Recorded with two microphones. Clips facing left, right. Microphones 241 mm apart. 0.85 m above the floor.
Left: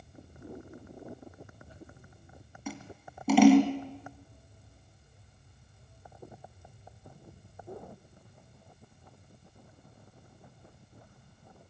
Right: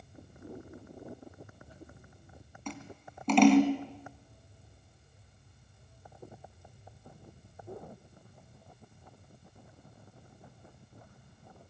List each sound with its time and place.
2.7 s scissors: 10° left (ahead or behind), 2 m